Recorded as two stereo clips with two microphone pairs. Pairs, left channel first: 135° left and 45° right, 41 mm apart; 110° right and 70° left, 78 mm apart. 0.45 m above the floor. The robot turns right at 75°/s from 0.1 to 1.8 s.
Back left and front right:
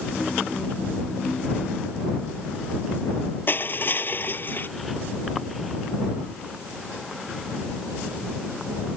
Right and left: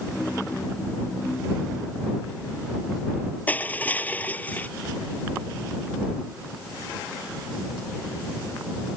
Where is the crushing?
Straight behind.